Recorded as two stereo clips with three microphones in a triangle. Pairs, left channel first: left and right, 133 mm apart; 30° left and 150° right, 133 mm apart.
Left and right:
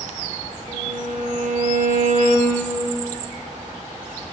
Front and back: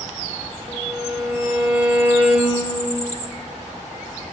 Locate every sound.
0.7 s a violin: 75° right, 4 m